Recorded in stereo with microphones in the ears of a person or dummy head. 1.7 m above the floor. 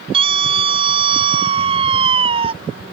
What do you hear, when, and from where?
0.1 s a scream: 35° right (ahead or behind)